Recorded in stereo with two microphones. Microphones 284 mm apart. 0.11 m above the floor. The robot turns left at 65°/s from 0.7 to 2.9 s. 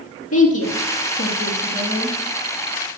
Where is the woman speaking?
60° left (ahead or behind), 3.5 m; by 2.1 s centre (ahead or behind), 3.5 m.